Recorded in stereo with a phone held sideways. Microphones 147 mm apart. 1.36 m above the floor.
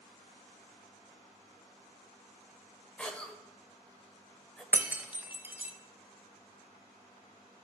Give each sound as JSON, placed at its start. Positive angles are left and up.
{"t": 3.0, "sound": "a cough", "side_deg": 10, "distance_m": 1.0}
{"t": 4.7, "sound": "breaking glass", "side_deg": -10, "distance_m": 0.6}